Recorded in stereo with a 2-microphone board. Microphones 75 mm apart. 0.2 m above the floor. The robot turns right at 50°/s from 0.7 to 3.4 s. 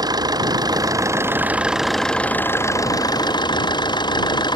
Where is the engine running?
60° right; by 4.6 s 75° left.